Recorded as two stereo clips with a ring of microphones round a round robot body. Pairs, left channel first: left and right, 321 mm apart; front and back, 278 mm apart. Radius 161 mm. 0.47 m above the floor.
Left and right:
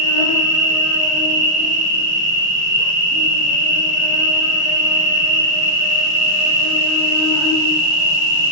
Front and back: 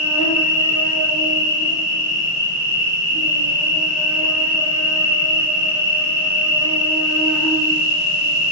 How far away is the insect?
About 1.1 m.